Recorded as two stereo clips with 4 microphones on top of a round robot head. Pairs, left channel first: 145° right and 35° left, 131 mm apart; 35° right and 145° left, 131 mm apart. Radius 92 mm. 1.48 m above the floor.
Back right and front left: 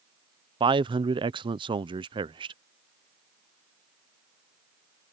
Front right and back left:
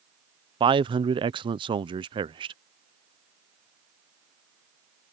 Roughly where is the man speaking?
Left.